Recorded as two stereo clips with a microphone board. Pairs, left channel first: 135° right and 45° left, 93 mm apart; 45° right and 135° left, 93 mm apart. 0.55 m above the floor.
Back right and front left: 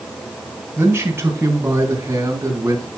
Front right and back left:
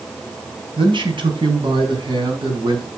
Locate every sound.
0.8 s a man speaking: 110° left, 4 m; by 2.9 s 100° left, 5 m